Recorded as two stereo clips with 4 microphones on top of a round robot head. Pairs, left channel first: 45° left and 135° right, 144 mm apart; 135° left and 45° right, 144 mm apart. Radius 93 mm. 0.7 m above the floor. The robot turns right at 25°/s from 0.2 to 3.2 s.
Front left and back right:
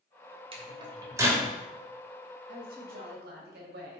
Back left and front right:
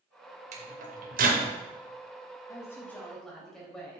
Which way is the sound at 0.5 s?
80° right.